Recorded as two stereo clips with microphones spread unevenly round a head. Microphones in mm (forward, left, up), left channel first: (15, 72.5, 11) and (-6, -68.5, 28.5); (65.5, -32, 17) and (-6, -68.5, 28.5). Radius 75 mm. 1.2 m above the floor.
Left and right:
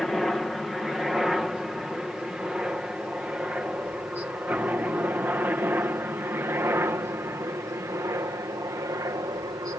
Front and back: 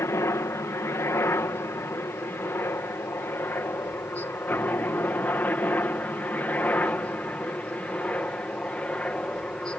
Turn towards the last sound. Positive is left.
turn(degrees=-40)